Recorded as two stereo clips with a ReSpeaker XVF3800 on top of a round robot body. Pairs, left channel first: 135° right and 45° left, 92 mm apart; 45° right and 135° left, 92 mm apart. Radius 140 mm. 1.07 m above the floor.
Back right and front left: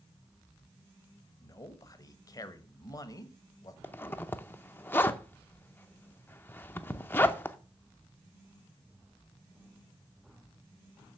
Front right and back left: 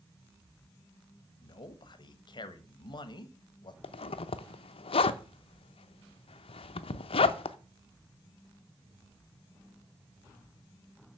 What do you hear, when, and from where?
1.4 s a man speaking: 85° right, 1.2 m
3.8 s a zipper: 65° right, 0.6 m